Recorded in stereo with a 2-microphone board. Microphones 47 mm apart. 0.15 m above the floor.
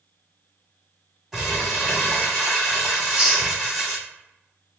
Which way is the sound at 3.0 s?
25° right (ahead or behind).